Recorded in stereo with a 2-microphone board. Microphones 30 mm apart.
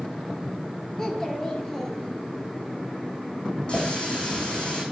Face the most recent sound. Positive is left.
turn(degrees=30)  # may be behind; listen again after turning